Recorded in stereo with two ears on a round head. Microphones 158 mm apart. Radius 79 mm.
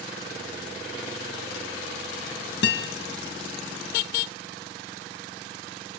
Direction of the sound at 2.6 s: 75° left (ahead or behind).